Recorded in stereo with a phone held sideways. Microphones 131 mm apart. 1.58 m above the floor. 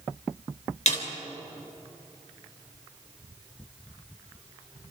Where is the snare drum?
65° left (ahead or behind), 3.5 m.